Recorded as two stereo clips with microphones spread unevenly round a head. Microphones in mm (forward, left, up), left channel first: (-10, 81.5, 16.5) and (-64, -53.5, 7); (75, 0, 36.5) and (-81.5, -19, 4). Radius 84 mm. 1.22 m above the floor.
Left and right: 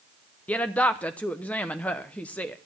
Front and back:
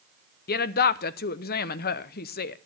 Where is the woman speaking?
15° right, 0.7 m.